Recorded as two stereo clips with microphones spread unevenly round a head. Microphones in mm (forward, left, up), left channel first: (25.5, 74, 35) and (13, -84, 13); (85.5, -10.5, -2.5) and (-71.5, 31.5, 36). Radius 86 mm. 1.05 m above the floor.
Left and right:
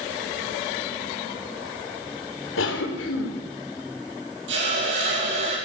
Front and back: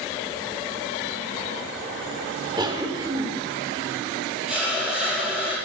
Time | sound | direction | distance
2.6 | a cough | 100° left | 3.5 m
4.5 | a hiss | 110° right | 8 m